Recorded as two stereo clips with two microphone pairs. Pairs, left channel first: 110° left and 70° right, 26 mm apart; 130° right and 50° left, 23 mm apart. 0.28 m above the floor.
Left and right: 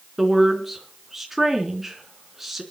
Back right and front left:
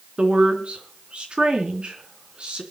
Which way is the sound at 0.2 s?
15° left.